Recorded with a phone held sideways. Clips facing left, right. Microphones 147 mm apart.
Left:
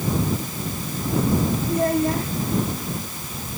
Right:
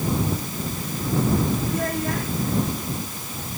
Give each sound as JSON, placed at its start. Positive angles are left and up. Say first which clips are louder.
{"t": 1.7, "sound": "a child speaking", "louder": "left 5 dB", "side_deg": 30}